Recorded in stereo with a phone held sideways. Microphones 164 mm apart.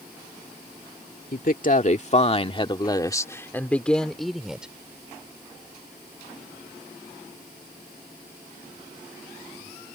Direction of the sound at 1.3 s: 60° left (ahead or behind).